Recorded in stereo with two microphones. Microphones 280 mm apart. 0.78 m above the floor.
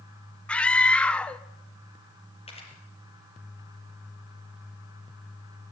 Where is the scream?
5° left (ahead or behind), 0.9 m.